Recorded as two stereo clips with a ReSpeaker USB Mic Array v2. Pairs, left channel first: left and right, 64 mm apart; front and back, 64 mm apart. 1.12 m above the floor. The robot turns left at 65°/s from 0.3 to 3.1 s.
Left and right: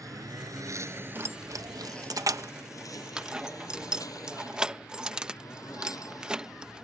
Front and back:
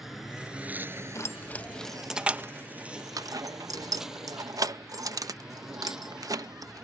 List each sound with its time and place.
0.0 s a lawn mower: 95° right; by 6.8 s 100° left
1.1 s keys jangling: 40° right; by 6.8 s 165° right